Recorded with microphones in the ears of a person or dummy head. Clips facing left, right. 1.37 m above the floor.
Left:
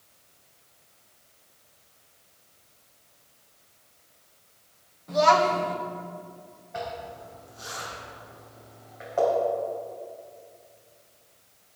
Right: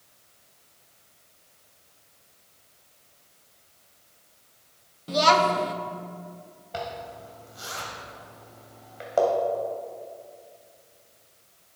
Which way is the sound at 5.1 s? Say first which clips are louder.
Left 1 dB; 45° right (ahead or behind).